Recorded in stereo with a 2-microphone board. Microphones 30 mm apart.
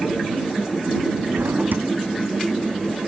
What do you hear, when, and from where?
1.3 s a drawer: 80° right